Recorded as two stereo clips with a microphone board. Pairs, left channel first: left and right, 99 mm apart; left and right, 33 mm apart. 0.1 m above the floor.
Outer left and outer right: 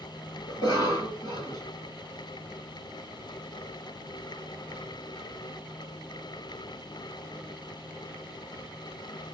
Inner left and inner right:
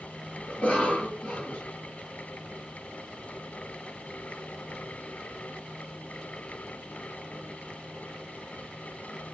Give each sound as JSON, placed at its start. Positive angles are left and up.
{"t": 0.5, "sound": "a cough", "side_deg": 40, "distance_m": 1.8}